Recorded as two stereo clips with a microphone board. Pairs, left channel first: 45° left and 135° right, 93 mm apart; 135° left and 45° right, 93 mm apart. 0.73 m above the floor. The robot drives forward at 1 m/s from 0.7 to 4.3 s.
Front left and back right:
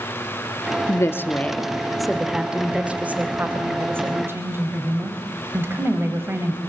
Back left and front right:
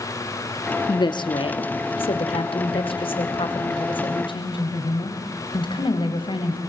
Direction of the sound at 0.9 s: 100° left.